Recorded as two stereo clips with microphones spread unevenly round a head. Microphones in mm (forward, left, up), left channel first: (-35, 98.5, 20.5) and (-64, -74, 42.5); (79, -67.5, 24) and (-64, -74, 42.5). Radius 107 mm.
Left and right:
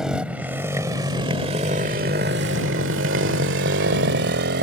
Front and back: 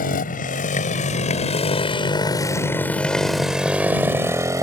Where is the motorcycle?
15° right; by 4.6 s 115° right.